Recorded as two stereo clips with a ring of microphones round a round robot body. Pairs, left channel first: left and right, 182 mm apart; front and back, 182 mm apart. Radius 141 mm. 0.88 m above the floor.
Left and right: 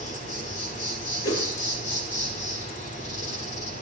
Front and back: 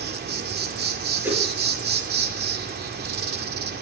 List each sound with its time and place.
0.0 s an insect: 150° left, 1.8 m
1.2 s a whoosh: 100° left, 6.5 m